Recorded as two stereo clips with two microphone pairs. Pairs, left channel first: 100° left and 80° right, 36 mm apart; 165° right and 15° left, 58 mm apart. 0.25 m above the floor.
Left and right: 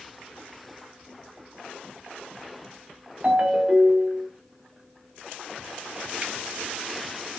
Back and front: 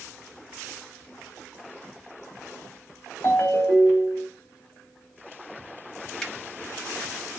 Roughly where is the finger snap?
Right.